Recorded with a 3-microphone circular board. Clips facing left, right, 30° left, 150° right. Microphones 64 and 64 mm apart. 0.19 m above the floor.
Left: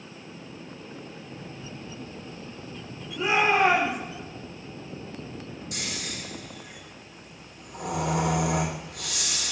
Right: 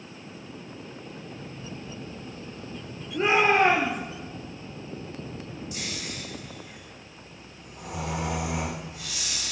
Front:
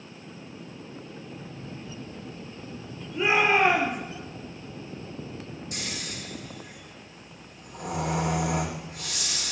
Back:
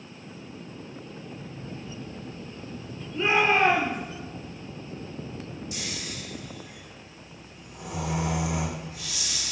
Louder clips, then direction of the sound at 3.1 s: Right 2 dB, even; 50° right.